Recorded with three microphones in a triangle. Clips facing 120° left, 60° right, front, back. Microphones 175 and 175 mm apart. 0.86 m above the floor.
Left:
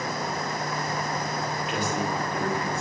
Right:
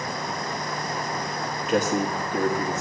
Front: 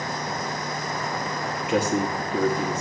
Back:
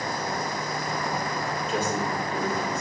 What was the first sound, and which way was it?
A man speaking, 15° right.